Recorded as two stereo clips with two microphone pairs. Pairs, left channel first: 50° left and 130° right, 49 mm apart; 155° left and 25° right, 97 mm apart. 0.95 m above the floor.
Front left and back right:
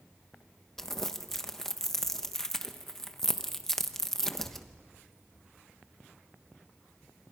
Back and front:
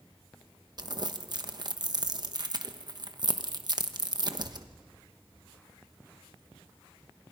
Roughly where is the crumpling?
Ahead right.